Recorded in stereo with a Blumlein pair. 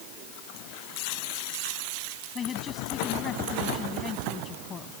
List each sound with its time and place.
2.4 s a man speaking: 20° left